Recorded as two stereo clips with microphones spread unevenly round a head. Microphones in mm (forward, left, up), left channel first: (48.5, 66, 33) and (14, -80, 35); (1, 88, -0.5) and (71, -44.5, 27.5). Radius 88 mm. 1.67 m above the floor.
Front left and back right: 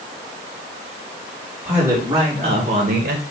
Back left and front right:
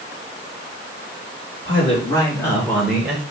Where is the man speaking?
Straight behind, 3 m; by 3.2 s 140° right, 1.9 m.